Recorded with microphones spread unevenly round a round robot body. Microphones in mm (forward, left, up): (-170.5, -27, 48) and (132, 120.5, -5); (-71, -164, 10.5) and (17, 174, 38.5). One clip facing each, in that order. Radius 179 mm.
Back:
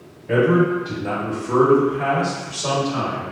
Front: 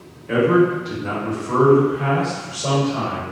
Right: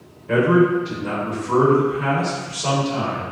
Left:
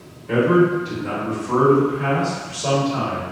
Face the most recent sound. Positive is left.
turn(degrees=-165)